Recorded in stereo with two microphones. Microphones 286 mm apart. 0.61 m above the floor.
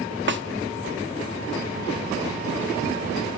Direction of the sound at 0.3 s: 40° right (ahead or behind).